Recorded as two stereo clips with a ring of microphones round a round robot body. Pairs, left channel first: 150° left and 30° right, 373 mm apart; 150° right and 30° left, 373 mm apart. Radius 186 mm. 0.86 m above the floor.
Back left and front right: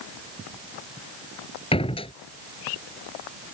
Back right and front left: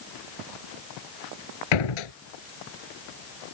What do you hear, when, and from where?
1.7 s a door slam: 135° right